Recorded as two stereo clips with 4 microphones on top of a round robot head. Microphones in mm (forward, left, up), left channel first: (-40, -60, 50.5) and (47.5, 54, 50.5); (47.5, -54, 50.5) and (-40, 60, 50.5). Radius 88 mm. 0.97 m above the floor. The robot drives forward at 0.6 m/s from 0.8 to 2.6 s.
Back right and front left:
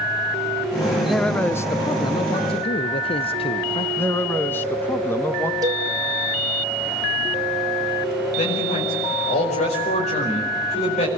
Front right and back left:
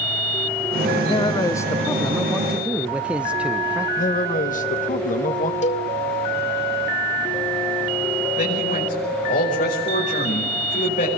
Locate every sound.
1.1 s a man speaking: 40° right, 0.8 m; by 3.9 s 155° right, 1.0 m
4.0 s a man speaking: 55° right, 1.2 m
5.6 s a cowbell: 15° right, 2 m
8.4 s a man speaking: 85° right, 5.5 m